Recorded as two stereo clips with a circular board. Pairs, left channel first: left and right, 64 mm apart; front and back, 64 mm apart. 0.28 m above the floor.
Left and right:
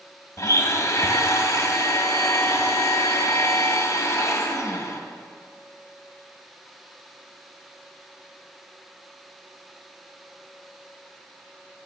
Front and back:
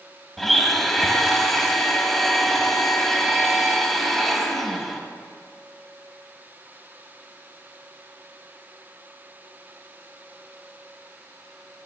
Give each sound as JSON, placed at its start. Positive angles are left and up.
{"t": 0.4, "sound": "a blender", "azimuth_deg": 85, "distance_m": 1.2}